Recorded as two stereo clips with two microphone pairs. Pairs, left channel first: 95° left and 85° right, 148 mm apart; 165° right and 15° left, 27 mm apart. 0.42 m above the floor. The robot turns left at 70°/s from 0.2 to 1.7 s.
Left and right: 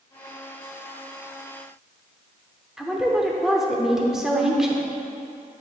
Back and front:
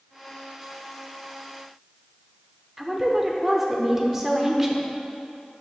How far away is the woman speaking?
About 0.7 m.